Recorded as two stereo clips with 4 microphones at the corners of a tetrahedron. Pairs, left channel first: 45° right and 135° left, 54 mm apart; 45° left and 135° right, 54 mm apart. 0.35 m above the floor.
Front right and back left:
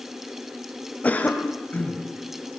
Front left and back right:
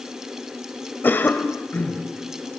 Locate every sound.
1.0 s a cough: 5° left, 1.4 m